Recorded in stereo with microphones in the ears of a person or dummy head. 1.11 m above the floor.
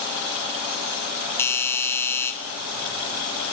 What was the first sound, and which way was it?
A doorbell, 15° left (ahead or behind).